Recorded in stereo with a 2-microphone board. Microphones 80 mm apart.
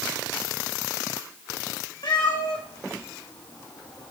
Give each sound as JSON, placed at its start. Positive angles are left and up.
{"t": 2.0, "sound": "a cat meowing", "side_deg": 80, "distance_m": 3.5}